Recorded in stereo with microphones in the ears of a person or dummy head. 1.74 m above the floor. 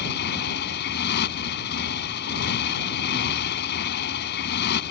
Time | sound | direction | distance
0.0 | a motorcycle | 55° left (ahead or behind) | ?